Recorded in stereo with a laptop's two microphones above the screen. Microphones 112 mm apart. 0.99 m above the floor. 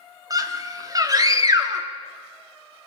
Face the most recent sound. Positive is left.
turn(degrees=-35)  # may be behind; listen again after turning